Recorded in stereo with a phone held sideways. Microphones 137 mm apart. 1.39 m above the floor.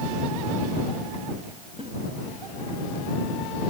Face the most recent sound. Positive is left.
turn(degrees=-45)  # may be behind; listen again after turning